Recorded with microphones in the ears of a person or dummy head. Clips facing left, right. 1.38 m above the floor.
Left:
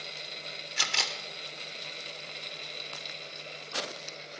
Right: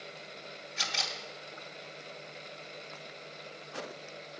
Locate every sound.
0.8 s a camera shutter: 70° left (ahead or behind), 0.9 m